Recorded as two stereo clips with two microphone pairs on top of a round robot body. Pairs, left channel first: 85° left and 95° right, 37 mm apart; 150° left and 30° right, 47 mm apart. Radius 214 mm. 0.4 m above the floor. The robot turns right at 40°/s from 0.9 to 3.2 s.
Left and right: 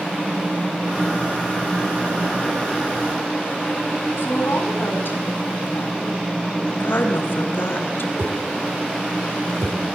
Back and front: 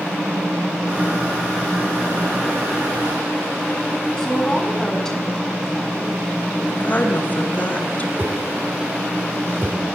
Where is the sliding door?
I don't hear a sliding door.